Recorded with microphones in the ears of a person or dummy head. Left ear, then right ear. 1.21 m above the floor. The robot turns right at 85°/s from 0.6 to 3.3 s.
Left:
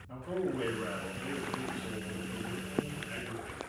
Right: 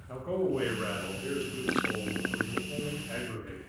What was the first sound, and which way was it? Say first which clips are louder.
A man speaking: right 5 dB; 150° right.